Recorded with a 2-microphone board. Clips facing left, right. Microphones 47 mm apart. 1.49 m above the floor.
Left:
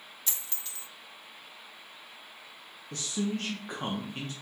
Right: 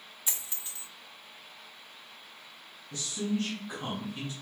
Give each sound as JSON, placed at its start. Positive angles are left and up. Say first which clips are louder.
{"t": 0.3, "sound": "a dropped coin", "louder": "right 1 dB", "side_deg": -15, "distance_m": 1.0}
{"t": 2.9, "sound": "a man speaking", "louder": "even", "side_deg": 50, "distance_m": 0.8}